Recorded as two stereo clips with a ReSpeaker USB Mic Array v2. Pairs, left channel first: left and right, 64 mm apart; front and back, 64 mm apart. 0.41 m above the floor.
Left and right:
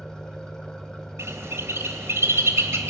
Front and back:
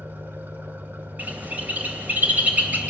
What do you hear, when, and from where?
0.0 s an engine running: 160° left, 1.2 m
1.2 s a bird: 120° right, 2.5 m